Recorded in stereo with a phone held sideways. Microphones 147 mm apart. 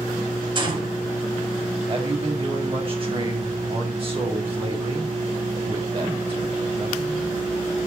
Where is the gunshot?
35° right (ahead or behind), 6 m.